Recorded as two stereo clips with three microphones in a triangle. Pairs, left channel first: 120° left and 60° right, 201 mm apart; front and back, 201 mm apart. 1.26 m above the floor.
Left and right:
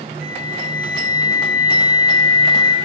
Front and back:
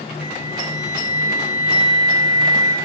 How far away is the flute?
About 6 m.